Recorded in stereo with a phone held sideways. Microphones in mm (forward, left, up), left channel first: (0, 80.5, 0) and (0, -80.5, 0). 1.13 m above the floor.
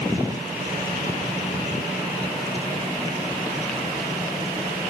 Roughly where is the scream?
No scream in this recording.